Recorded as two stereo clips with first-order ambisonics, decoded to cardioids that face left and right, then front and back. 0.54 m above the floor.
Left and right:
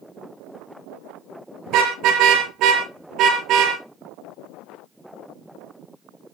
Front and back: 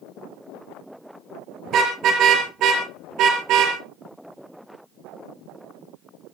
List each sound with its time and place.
1.7 s a car horn: 130° right, 5.5 m; by 3.8 s 140° right, 6 m